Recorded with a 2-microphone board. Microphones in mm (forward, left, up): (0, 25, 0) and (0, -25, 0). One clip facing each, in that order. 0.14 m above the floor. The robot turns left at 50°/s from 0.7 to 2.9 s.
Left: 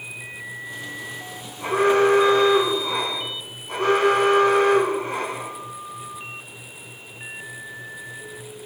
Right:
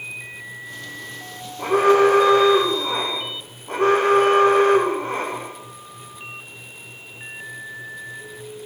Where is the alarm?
65° right, 4 m; by 5.5 s 130° right, 4 m.